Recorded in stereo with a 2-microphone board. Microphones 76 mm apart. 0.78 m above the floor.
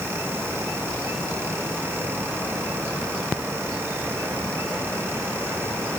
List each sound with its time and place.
Only background noise.